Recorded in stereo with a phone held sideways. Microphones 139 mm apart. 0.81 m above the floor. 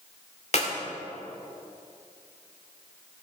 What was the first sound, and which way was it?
A clap, 55° left (ahead or behind).